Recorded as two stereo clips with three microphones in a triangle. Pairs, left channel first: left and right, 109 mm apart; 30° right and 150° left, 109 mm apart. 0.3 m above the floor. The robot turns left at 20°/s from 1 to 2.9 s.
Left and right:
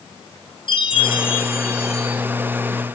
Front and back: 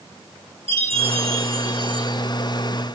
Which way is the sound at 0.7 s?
130° left.